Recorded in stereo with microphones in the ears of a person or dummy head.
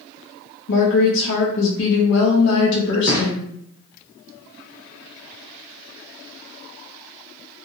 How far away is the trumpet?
No trumpet in this recording.